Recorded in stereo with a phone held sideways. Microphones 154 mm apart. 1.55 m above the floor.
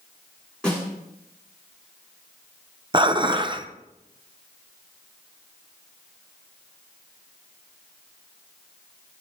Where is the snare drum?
5° left (ahead or behind), 6 m.